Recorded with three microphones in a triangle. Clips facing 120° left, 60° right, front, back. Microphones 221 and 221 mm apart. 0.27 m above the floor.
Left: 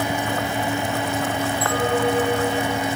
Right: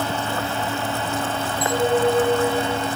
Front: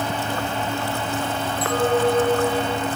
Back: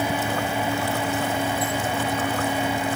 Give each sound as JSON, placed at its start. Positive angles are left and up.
{"t": 1.6, "sound": "a clink", "azimuth_deg": 15}